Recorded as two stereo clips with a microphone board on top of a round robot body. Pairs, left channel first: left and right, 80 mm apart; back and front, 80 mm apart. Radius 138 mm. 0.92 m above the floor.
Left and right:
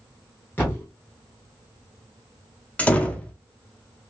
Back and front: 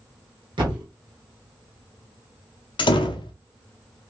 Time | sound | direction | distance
0.6 | a thud | 25° left | 1.0 m
2.8 | a door slam | 165° left | 0.5 m